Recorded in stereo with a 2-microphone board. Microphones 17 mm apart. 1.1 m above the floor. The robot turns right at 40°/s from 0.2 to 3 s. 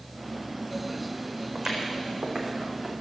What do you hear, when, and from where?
1.6 s footsteps: 30° right (ahead or behind), 4 m; by 2.9 s 70° right (ahead or behind), 4 m